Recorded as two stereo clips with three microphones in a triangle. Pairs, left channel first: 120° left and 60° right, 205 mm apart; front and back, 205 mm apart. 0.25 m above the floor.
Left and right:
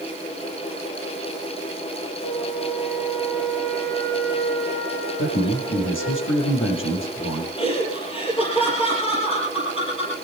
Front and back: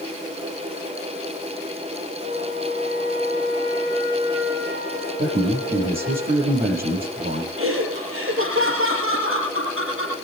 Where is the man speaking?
135° left, 6 m.